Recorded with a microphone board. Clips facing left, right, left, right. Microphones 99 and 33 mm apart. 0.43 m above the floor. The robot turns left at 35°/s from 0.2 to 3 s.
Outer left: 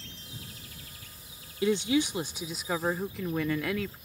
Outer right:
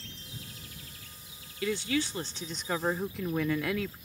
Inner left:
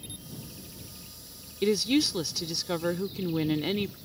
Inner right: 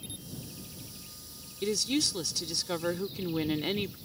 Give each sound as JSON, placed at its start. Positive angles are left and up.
{"t": 1.6, "sound": "a woman speaking", "azimuth_deg": 45}